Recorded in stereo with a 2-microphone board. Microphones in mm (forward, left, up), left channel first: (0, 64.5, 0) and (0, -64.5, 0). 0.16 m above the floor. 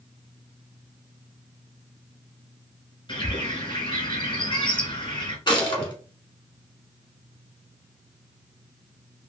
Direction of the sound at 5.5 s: 35° left (ahead or behind).